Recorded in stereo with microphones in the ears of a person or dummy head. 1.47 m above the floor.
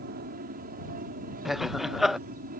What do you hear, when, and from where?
0.0 s an aircraft: 45° right (ahead or behind); by 2.6 s 40° right (ahead or behind)
1.4 s laughter: centre (ahead or behind)